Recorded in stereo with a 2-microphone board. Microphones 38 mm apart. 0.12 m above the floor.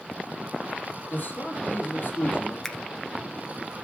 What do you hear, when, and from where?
1.1 s a man speaking: 60° left (ahead or behind), 4 m
2.6 s a finger snap: 10° left (ahead or behind), 1.2 m